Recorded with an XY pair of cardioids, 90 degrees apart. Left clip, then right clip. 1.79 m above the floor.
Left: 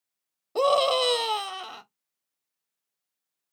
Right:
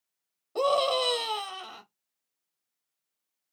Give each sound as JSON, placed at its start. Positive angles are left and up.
{"t": 0.6, "sound": "a scream", "azimuth_deg": 45, "distance_m": 1.1}